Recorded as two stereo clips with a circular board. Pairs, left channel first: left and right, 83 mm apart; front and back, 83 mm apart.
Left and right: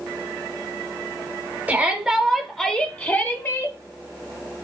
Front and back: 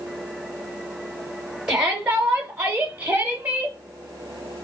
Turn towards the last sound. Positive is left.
turn(degrees=120)